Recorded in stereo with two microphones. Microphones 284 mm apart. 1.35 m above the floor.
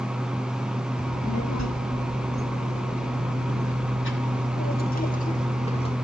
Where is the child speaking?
70° left (ahead or behind), 2 m; by 6.0 s 20° left (ahead or behind), 2 m.